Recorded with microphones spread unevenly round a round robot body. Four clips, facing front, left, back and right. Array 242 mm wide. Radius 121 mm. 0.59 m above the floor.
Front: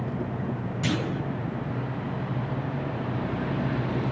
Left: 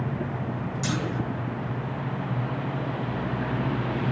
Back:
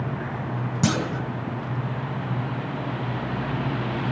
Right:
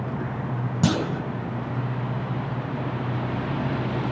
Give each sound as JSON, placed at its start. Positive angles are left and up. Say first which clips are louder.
{"t": 0.8, "sound": "a clunk", "louder": "right 6 dB, back 4 dB", "azimuth_deg": -130, "distance_m": 2.5}